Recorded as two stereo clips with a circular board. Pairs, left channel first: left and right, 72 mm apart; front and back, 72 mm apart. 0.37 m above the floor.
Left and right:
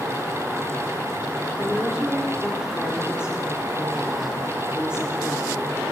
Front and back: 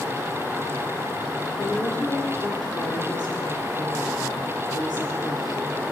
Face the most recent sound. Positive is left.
turn(degrees=-15)